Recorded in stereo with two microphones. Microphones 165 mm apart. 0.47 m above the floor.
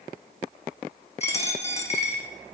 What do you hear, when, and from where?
1.2 s a dropped coin: 40° left (ahead or behind), 1.1 m